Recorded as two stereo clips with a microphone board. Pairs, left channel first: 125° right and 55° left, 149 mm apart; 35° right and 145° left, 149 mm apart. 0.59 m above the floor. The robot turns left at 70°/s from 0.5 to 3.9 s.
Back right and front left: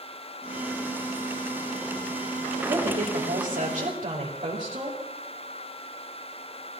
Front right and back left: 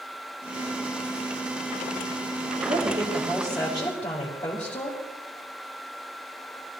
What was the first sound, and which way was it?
A woman speaking, 110° left.